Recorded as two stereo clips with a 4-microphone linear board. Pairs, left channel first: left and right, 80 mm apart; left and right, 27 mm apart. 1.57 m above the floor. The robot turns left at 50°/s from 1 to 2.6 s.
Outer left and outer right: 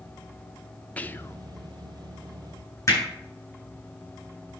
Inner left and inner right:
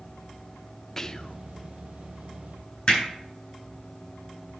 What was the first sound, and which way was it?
Whispering, 15° left (ahead or behind).